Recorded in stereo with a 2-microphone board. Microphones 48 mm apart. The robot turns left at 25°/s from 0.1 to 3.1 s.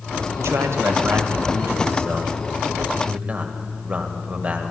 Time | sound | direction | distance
0.4 | a man speaking | 80° right | 1.6 m